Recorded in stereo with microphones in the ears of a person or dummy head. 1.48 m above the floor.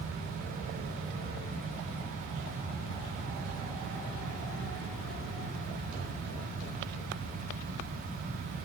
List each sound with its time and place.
Only background noise.